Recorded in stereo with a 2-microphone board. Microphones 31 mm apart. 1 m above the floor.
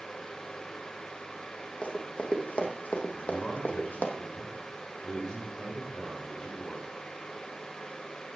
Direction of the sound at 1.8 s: 50° left (ahead or behind).